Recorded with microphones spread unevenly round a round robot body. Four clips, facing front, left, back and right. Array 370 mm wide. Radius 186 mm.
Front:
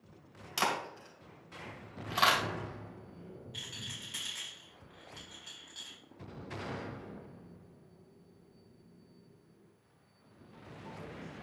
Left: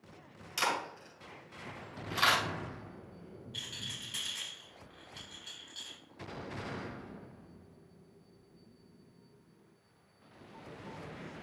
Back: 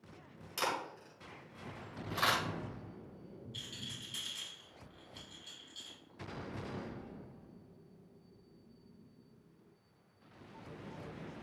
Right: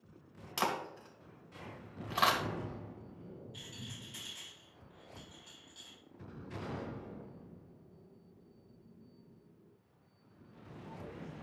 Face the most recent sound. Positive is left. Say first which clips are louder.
# left 1 dB, front 1 dB
turn(degrees=50)